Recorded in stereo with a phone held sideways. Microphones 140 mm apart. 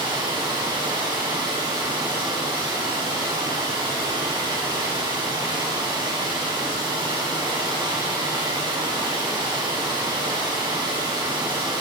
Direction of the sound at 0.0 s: 35° right (ahead or behind).